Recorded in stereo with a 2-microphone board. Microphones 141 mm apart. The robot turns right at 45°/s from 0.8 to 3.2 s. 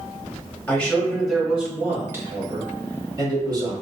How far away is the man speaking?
About 1.1 m.